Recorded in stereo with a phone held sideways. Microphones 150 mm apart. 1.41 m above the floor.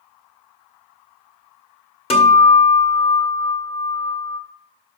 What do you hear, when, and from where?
2.1 s a guitar: 40° left (ahead or behind), 1.5 m